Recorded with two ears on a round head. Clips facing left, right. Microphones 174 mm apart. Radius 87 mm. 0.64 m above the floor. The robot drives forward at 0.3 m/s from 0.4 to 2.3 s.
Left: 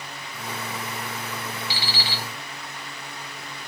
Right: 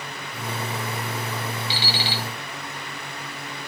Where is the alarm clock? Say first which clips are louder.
Right 3 dB; 25° right (ahead or behind), 3 m.